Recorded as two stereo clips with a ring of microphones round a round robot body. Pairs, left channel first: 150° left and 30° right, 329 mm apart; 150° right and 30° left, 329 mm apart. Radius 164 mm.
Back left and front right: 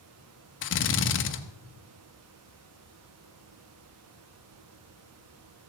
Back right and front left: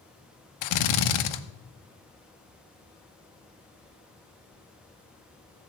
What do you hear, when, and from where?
0.6 s a drill: 155° right, 1.1 m